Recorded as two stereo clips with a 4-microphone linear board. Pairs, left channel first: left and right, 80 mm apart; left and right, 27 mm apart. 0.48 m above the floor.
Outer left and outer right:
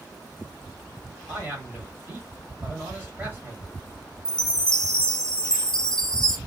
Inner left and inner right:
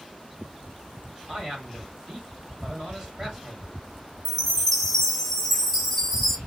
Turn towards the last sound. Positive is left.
turn(degrees=10)  # may be behind; listen again after turning